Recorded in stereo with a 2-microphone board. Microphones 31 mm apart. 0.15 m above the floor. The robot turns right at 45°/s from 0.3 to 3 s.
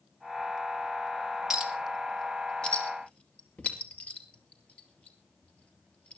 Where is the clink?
15° right (ahead or behind), 2 m; by 6.2 s 45° left (ahead or behind), 2 m.